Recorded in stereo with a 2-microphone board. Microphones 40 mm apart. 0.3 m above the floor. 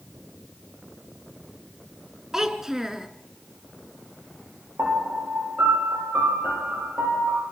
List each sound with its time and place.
2.3 s a child speaking: 10° right (ahead or behind), 3 m
4.8 s a piano: 65° right (ahead or behind), 9 m